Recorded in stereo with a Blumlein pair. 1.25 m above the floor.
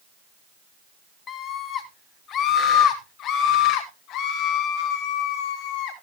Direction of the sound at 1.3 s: 25° left.